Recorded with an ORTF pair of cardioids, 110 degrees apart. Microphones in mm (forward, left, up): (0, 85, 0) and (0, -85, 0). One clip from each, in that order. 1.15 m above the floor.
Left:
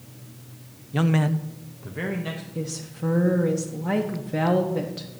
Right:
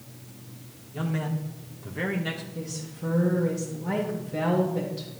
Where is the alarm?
I don't hear an alarm.